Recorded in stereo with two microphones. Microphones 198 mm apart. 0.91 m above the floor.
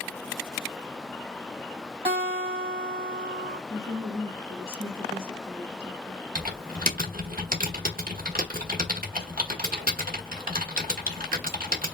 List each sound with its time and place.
2.0 s a guitar: 30° right (ahead or behind), 2.5 m
3.7 s a woman speaking: 50° right (ahead or behind), 1.8 m
6.3 s typing on a keyboard: 50° right (ahead or behind), 1.2 m